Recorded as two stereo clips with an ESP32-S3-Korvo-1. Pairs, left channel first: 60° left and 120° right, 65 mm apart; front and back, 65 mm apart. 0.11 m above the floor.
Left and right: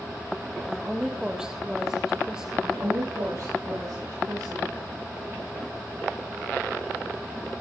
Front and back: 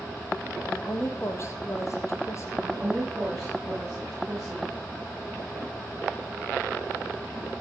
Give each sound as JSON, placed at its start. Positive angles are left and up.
{"t": 0.7, "sound": "a woman speaking", "azimuth_deg": -40, "distance_m": 3.0}
{"t": 2.6, "sound": "a woman speaking", "azimuth_deg": -95, "distance_m": 10.0}